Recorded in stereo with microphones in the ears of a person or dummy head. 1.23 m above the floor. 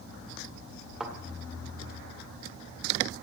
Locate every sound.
1.0 s a thud: 5° right (ahead or behind), 1.7 m